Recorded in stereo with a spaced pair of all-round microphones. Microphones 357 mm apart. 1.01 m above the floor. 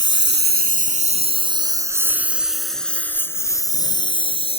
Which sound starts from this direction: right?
A lawn mower, at 0.0 s.